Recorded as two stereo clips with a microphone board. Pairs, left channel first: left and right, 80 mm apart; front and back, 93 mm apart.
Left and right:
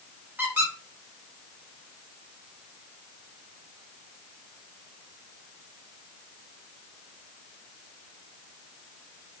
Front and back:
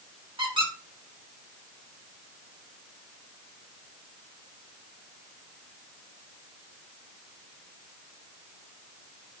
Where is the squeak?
155° right, 1.6 m.